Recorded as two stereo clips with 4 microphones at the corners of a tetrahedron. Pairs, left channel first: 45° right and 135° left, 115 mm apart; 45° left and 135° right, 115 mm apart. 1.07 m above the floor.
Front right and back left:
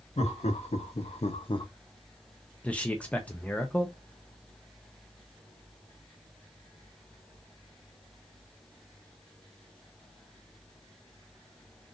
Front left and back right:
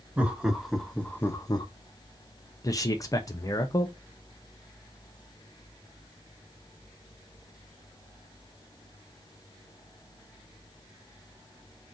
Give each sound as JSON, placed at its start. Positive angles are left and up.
{"t": 0.2, "sound": "laughter", "azimuth_deg": -60, "distance_m": 1.3}
{"t": 2.6, "sound": "a man speaking", "azimuth_deg": 20, "distance_m": 0.7}